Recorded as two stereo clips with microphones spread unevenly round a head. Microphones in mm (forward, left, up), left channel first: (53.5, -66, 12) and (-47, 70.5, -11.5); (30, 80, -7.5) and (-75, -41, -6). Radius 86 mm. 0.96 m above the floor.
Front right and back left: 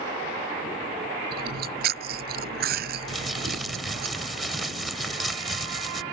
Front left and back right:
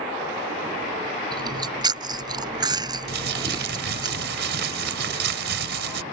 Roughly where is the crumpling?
Behind right.